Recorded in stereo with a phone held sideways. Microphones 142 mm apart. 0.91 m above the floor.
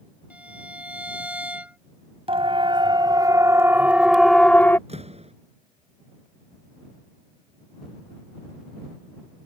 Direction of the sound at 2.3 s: 45° right (ahead or behind).